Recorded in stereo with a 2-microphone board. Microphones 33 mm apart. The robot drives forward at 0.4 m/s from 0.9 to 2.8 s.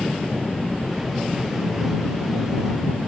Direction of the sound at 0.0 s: 10° right (ahead or behind).